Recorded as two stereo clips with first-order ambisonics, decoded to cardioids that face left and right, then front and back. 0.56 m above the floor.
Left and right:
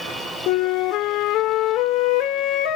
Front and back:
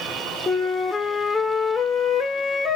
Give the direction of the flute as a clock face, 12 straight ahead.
10 o'clock.